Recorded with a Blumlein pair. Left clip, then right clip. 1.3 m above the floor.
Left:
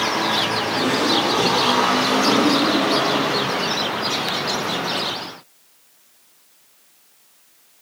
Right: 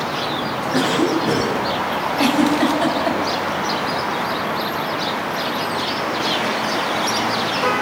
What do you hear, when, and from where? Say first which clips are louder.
0.7 s a cough: right 2 dB; 40° right, 7 m
2.2 s a giggle: even; 30° right, 9 m